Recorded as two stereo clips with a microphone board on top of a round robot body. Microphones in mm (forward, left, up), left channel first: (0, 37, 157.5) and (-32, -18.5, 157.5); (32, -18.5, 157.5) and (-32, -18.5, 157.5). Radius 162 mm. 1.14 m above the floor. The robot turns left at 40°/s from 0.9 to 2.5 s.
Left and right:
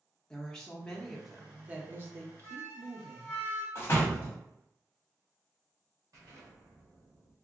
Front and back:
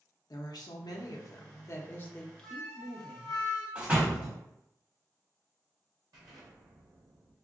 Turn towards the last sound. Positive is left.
turn(degrees=-155)